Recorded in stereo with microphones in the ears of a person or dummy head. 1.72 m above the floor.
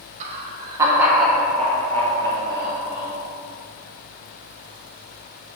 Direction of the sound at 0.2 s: 40° right (ahead or behind).